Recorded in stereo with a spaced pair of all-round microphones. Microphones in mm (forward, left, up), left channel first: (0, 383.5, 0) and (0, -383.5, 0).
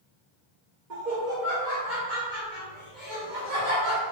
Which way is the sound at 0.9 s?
75° right (ahead or behind).